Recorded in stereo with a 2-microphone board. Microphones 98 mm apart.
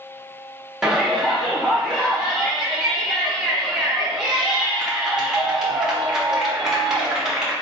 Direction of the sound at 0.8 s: 5° right (ahead or behind).